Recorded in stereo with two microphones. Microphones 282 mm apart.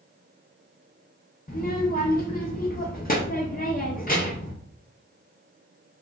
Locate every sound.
1.5 s a child speaking: 30° left (ahead or behind), 0.5 m